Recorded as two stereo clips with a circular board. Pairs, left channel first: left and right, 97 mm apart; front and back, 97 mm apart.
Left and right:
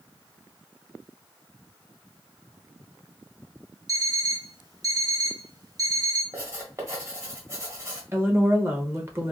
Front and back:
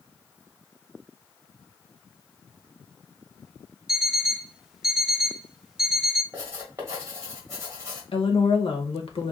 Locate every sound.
3.9 s an alarm clock: 100° right, 0.7 m
6.3 s writing: 135° right, 1.3 m
8.1 s a woman speaking: 25° right, 0.9 m